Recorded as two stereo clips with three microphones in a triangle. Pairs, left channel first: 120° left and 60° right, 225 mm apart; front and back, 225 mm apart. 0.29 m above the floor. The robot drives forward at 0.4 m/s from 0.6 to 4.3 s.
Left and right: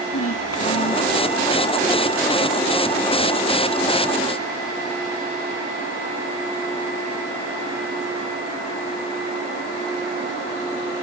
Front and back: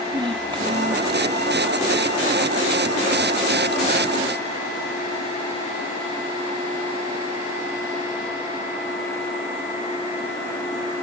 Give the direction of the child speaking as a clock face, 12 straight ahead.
8 o'clock.